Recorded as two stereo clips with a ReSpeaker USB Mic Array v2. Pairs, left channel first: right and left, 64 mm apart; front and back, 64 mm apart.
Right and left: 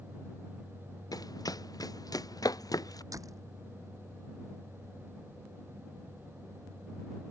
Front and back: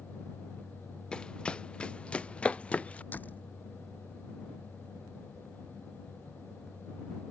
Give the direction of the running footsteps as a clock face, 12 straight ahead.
3 o'clock.